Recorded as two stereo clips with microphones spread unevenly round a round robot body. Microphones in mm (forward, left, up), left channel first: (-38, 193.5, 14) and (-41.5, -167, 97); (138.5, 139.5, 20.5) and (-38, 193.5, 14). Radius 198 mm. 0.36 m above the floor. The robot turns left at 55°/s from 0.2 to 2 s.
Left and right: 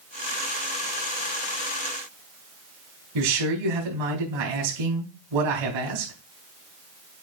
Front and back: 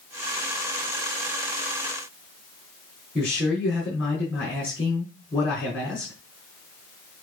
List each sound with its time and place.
3.1 s a man speaking: 105° right, 4 m